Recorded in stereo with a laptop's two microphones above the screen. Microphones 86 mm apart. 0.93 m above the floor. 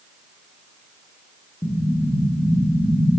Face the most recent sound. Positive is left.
turn(degrees=70)  # may be behind; listen again after turning